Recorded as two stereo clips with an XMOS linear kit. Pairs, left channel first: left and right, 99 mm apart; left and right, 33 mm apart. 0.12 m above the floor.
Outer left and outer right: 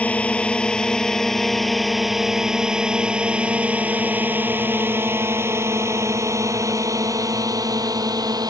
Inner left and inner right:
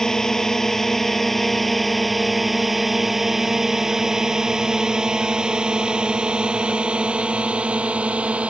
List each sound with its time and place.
0.0 s a drone: 15° left (ahead or behind); by 8.5 s 40° right (ahead or behind)